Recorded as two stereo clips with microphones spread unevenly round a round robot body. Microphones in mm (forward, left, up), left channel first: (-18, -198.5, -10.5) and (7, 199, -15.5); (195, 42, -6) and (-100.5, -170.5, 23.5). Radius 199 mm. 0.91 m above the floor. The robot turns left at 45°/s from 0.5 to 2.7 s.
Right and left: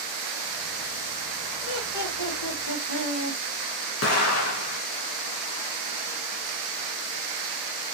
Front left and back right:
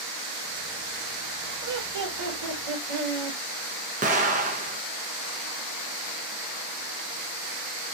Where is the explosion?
80° right, 0.6 m.